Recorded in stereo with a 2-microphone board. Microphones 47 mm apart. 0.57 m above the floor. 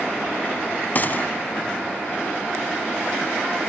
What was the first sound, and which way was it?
A gunshot, 40° left (ahead or behind).